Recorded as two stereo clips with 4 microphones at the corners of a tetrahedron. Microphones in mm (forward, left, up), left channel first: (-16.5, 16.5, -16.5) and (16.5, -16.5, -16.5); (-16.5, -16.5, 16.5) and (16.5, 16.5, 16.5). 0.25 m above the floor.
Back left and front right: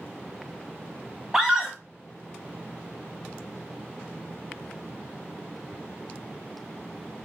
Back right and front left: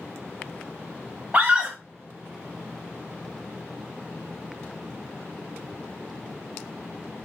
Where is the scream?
25° left, 1.2 m.